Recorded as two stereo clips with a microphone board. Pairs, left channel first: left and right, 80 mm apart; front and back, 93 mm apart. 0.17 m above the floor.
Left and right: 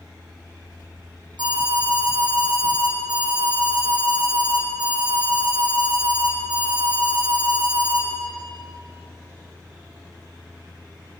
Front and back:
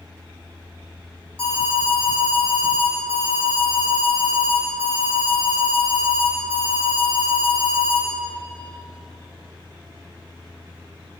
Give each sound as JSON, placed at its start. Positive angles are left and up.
{"t": 1.4, "sound": "an alarm", "azimuth_deg": -75, "distance_m": 5.0}